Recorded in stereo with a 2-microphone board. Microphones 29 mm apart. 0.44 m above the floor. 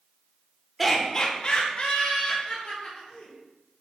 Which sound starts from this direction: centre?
Laughter, at 0.8 s.